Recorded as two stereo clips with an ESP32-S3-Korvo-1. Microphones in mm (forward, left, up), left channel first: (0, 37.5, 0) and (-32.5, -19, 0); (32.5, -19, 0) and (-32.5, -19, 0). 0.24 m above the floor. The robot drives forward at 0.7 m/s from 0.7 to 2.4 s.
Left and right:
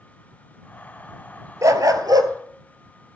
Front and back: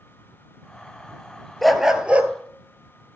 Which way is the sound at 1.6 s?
90° right.